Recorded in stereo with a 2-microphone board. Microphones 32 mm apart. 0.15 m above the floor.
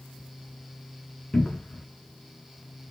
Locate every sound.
1.3 s a cupboard door: 35° left (ahead or behind), 0.6 m